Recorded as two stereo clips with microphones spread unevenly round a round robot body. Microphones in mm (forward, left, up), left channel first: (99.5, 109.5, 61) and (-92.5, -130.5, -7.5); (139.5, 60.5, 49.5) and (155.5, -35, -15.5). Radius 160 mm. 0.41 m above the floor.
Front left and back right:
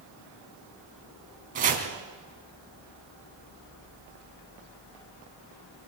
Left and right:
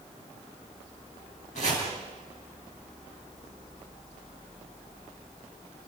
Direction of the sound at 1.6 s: 170° left.